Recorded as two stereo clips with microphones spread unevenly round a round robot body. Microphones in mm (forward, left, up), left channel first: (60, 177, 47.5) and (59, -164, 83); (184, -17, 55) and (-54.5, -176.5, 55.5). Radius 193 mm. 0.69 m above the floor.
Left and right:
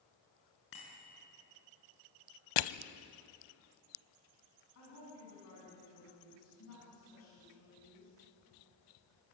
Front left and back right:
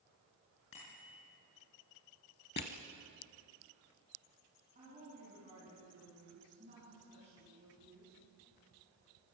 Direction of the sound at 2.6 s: 95° left.